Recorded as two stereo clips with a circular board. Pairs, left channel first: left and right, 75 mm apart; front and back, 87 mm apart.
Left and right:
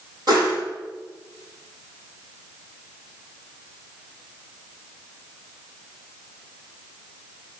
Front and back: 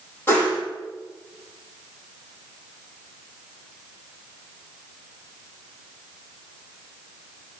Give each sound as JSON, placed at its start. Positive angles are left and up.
{"t": 0.3, "sound": "a whoosh", "azimuth_deg": -65, "distance_m": 4.0}